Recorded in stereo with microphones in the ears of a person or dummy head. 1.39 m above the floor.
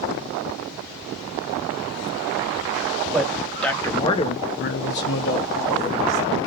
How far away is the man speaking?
About 0.9 m.